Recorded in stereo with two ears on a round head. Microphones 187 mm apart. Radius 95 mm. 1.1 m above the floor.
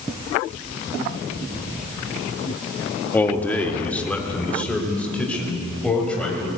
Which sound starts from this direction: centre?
A man speaking, at 3.1 s.